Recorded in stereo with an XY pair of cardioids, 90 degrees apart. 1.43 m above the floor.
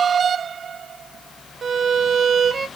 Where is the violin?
45° right, 0.5 m.